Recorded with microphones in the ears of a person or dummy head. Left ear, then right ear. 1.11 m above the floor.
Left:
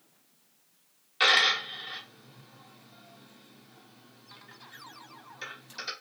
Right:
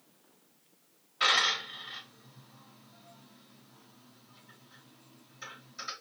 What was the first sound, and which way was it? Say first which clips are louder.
A dropped coin: left 4 dB; 45° left (ahead or behind).